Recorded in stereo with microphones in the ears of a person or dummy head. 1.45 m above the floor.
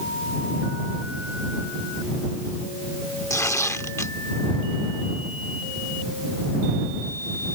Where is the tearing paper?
10° left (ahead or behind).